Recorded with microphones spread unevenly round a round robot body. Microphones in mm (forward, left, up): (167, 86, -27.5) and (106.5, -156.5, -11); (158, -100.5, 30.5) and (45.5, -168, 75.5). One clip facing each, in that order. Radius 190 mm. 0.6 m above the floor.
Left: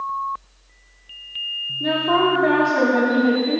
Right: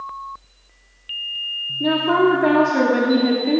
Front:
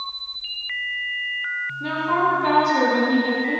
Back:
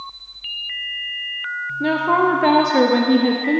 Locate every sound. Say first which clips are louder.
1.8 s a woman speaking: right 3 dB, back 5 dB; 150° right, 1.0 m